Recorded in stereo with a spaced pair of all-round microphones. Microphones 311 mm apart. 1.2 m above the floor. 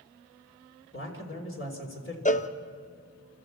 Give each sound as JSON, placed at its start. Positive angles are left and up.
{"t": 0.9, "sound": "a man speaking", "side_deg": 40, "distance_m": 3.5}
{"t": 2.2, "sound": "a cowbell", "side_deg": 25, "distance_m": 0.7}